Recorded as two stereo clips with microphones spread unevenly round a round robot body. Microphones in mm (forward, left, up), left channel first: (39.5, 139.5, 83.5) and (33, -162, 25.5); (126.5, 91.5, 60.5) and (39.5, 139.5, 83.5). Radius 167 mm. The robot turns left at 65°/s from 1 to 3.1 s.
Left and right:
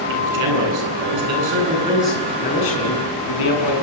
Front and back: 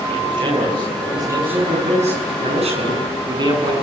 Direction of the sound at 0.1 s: 110° right.